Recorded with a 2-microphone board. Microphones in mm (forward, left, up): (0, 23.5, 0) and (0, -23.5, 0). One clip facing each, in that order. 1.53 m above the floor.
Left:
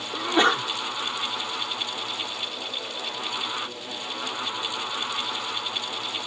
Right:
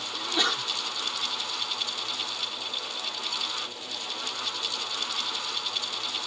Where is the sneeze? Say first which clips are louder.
Left 8 dB; 35° left (ahead or behind).